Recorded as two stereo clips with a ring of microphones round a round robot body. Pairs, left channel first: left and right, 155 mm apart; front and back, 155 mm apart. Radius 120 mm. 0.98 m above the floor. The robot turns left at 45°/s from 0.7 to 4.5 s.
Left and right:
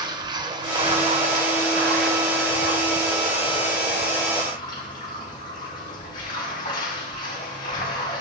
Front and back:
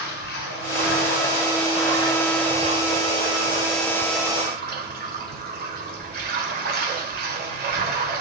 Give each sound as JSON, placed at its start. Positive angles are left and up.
{"t": 0.0, "sound": "running water", "azimuth_deg": -30, "distance_m": 2.0}